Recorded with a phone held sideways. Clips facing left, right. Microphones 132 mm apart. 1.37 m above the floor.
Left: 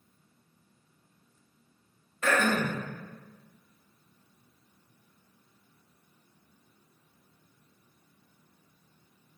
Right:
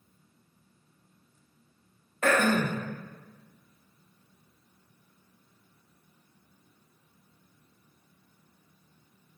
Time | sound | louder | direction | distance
2.2 | throat clearing | right 2 dB | 50° right (ahead or behind) | 0.6 m